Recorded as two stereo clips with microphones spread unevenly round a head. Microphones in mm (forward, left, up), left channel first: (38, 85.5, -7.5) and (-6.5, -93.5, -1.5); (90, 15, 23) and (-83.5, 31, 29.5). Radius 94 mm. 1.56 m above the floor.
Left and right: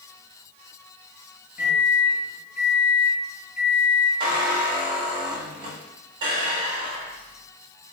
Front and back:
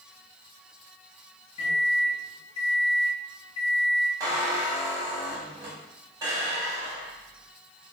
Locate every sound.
1.6 s a microwave: 20° right, 1.6 m
4.2 s a squeak: 130° right, 0.9 m